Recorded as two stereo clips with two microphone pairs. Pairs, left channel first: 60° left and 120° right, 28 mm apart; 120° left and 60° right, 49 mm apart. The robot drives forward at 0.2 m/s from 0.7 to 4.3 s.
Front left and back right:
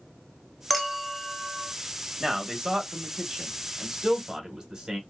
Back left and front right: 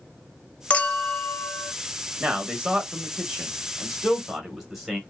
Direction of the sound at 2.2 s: 95° right.